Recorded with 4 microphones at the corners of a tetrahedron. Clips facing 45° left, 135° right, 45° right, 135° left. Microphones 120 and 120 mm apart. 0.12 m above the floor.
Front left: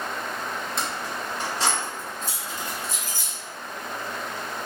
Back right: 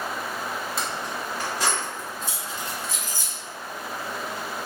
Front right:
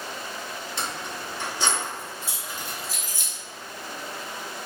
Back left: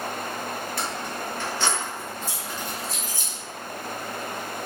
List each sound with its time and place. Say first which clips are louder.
0.8 s keys jangling: even, back left 3 dB; 50° right, 1.0 m; by 3.3 s 40° left, 1.8 m